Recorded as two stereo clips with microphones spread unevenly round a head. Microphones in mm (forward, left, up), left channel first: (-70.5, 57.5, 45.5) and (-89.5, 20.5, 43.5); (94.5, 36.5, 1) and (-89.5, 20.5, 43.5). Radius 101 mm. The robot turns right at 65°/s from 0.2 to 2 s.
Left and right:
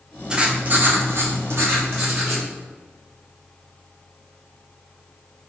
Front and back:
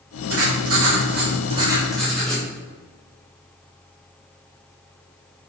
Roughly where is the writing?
Behind.